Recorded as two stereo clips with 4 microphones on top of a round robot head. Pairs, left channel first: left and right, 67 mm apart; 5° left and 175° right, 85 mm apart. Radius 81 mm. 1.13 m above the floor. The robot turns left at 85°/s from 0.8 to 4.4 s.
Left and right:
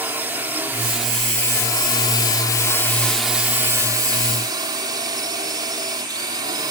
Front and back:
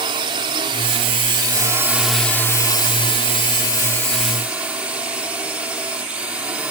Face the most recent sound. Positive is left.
turn(degrees=-100)